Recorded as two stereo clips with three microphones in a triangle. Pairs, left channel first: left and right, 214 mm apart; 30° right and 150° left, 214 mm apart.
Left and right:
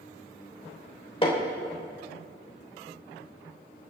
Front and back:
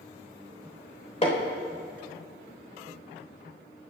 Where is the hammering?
25° left, 3.5 m.